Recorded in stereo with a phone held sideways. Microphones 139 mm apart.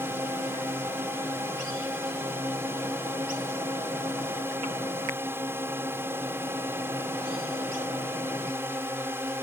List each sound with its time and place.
0.0 s a drone: 15° right (ahead or behind)